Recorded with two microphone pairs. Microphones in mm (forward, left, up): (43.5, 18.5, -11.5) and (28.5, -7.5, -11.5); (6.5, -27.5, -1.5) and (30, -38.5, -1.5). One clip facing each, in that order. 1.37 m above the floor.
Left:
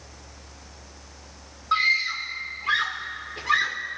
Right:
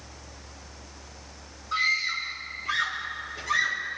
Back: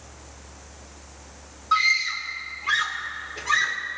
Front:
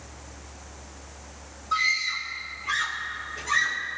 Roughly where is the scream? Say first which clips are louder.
Left 4 dB, back 4 dB; left.